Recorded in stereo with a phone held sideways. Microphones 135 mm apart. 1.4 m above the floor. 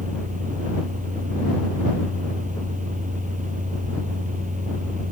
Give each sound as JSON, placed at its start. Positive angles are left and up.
{"t": 0.0, "sound": "a fan", "side_deg": -65}